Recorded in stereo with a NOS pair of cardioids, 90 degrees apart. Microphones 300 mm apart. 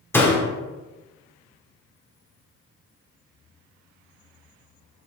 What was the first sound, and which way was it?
A door slam, 5° left.